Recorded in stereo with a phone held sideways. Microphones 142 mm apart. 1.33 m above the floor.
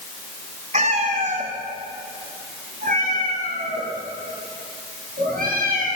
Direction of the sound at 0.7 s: 55° right (ahead or behind).